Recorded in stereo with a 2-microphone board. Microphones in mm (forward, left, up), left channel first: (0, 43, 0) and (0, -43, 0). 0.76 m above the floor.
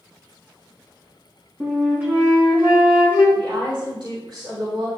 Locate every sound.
1.6 s a flute: 25° right (ahead or behind), 3 m
3.4 s a woman speaking: 70° right (ahead or behind), 3.5 m